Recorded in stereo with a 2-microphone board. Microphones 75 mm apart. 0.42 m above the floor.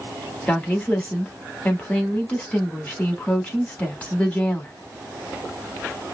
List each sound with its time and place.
0.5 s a woman speaking: 20° left (ahead or behind), 1.1 m